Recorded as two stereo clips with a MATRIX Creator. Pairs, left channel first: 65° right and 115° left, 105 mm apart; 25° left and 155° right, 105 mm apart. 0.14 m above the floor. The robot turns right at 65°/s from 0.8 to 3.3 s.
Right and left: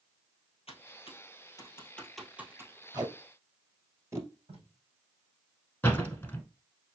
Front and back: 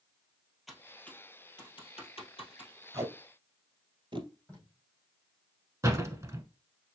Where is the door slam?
125° right, 1.0 m.